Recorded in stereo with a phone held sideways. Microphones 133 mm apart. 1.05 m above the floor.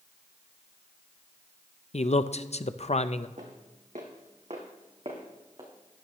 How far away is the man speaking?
About 0.5 m.